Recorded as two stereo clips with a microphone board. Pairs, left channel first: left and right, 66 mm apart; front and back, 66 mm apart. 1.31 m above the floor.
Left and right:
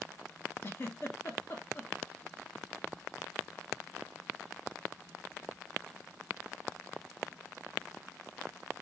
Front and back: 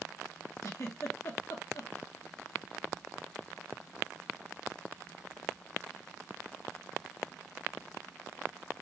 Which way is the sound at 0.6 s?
35° left.